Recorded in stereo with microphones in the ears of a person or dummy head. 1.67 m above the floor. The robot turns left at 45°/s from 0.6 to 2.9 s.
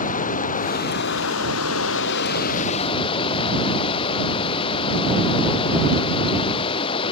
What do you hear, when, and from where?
0.0 s running water: 135° left; by 7.1 s 35° left